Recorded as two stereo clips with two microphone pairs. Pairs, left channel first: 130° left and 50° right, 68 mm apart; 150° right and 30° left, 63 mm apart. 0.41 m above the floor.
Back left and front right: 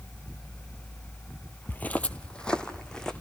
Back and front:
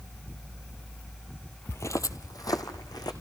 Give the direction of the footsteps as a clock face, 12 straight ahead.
6 o'clock.